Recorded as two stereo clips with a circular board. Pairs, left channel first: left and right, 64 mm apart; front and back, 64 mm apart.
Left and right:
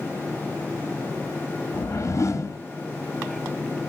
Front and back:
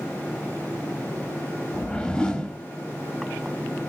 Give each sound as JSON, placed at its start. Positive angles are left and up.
{"t": 1.7, "sound": "a whoosh", "azimuth_deg": 75, "distance_m": 0.7}